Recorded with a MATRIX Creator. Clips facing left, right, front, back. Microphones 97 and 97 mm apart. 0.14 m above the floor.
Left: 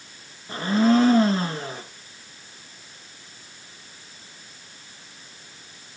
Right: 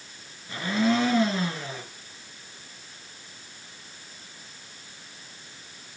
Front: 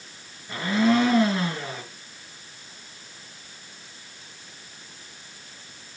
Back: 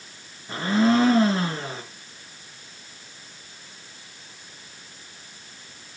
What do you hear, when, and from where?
0.5 s a blender: 130° left, 1.7 m